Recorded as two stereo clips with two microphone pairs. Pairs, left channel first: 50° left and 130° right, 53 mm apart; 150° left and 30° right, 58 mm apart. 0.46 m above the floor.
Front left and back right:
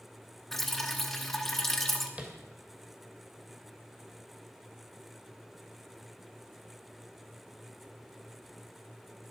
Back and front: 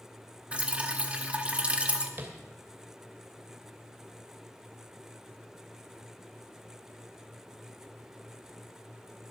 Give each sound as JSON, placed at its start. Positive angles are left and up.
{"t": 0.5, "sound": "dripping", "azimuth_deg": -35, "distance_m": 1.3}
{"t": 2.2, "sound": "tapping", "azimuth_deg": -70, "distance_m": 2.5}